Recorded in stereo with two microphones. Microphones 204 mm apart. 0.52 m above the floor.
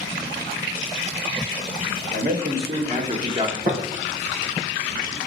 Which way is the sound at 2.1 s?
60° right (ahead or behind).